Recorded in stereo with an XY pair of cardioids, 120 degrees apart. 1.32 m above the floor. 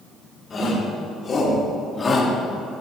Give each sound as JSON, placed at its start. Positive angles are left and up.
{"t": 0.5, "sound": "a shout", "azimuth_deg": 35, "distance_m": 5.0}